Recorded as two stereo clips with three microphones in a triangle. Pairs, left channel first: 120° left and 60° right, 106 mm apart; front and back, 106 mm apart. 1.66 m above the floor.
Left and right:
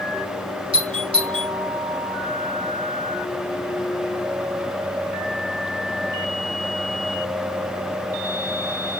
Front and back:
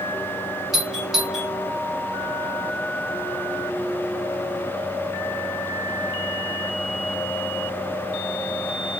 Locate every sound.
0.7 s a doorbell: 95° right, 2.0 m